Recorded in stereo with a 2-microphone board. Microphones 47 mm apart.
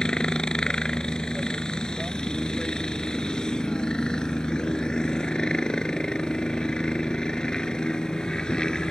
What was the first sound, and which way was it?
A helicopter, 15° left (ahead or behind).